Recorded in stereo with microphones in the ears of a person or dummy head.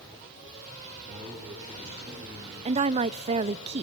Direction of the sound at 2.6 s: 35° right (ahead or behind).